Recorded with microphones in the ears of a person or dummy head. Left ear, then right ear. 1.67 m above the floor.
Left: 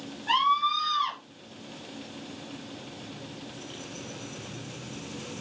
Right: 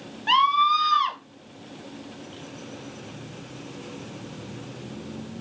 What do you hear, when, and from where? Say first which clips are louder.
0.3 s a scream: right 5 dB; 70° right (ahead or behind), 2 m